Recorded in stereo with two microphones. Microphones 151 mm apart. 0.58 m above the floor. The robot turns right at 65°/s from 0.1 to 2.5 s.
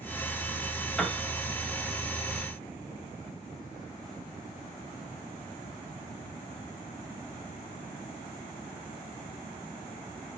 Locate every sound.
1.0 s a piano: 5° left (ahead or behind), 1.1 m; by 1.2 s 15° left (ahead or behind), 1.1 m